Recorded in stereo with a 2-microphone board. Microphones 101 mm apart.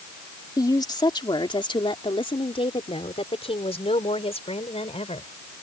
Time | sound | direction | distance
0.6 | a woman speaking | 40° left (ahead or behind) | ?